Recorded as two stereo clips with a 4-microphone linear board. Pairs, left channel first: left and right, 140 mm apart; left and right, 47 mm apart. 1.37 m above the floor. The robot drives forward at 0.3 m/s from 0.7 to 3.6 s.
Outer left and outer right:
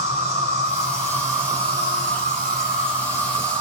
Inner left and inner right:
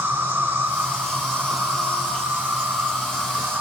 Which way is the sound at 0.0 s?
50° right (ahead or behind).